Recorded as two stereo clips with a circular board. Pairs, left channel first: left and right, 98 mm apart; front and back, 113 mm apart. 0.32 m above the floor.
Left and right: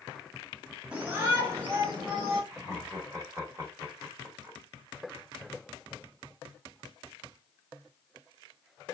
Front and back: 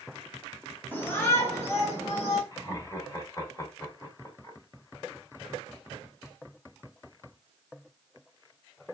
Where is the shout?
35° right, 1.2 m; by 2.4 s 55° right, 2.0 m.